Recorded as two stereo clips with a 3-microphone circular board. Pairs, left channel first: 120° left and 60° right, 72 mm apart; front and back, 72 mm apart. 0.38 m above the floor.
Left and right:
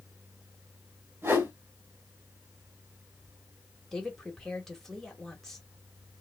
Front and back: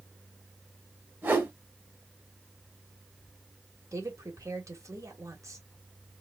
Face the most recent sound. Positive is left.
turn(degrees=-160)